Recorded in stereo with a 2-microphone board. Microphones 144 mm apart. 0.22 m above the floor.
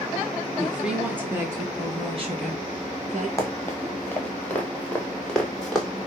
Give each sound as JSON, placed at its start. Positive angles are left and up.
{"t": 0.6, "sound": "a woman speaking", "side_deg": -5, "distance_m": 3.5}
{"t": 3.4, "sound": "running footsteps", "side_deg": 20, "distance_m": 4.0}